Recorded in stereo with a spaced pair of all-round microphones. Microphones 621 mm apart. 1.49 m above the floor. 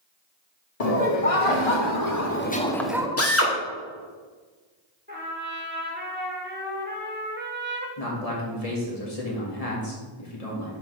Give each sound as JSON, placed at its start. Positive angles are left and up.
{"t": 0.8, "sound": "laughter", "side_deg": 75, "distance_m": 1.2}
{"t": 3.2, "sound": "a drill", "side_deg": 20, "distance_m": 1.1}
{"t": 5.1, "sound": "a trumpet", "side_deg": -15, "distance_m": 1.3}
{"t": 8.0, "sound": "a man speaking", "side_deg": 70, "distance_m": 2.5}